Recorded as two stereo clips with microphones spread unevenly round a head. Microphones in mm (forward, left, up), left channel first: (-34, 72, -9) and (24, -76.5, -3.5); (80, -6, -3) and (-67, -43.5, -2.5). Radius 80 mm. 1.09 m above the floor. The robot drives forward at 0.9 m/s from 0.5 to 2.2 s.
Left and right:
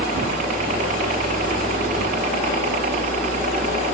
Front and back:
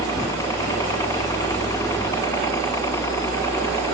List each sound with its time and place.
0.0 s a helicopter: 50° right